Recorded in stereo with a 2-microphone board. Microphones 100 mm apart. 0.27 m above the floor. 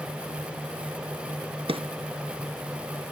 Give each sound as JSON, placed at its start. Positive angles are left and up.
{"t": 1.7, "sound": "a drawer", "side_deg": -65, "distance_m": 0.9}